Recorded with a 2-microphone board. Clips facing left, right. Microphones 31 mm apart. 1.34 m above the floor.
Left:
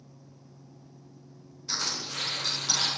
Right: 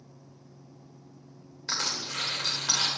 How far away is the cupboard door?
No cupboard door in this recording.